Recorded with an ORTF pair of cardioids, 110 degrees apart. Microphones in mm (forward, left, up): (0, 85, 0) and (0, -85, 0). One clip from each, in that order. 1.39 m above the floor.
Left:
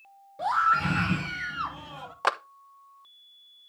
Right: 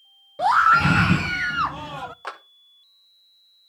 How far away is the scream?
About 0.6 m.